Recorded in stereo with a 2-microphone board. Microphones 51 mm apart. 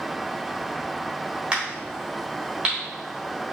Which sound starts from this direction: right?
A crack, at 1.5 s.